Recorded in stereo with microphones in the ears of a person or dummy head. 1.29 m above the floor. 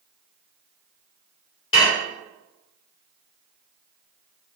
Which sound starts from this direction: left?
Dishes clattering, at 1.7 s.